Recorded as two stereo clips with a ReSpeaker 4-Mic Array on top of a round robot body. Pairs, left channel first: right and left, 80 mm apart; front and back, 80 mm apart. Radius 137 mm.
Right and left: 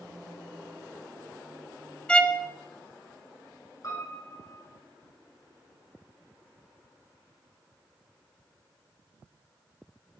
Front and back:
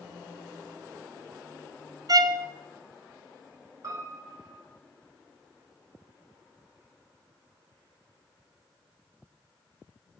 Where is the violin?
165° right, 0.8 m.